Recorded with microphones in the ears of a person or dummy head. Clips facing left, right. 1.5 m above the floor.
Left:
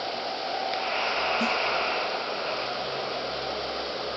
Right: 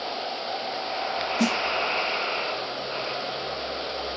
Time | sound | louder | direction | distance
1.4 | a snare drum | right 8 dB | 65° right (ahead or behind) | 0.8 m